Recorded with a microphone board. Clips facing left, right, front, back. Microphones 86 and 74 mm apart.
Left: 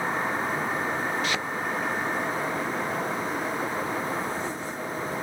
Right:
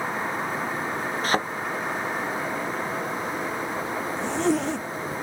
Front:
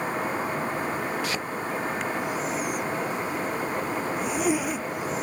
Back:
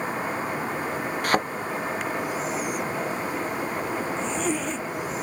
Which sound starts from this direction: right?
A zipper, at 4.2 s.